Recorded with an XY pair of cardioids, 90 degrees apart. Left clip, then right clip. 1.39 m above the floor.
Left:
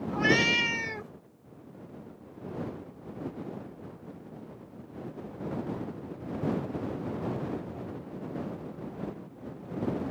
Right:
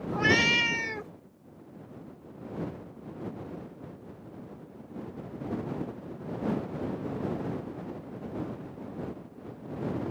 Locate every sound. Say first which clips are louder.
0.1 s a cat meowing: right 1 dB; 15° right